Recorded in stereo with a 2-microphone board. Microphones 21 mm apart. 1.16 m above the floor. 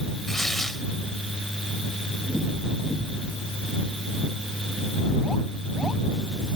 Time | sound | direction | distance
0.3 | tearing paper | 15° left (ahead or behind) | ?